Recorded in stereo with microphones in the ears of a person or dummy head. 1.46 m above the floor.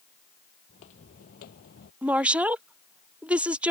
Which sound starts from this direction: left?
Footsteps, at 0.7 s.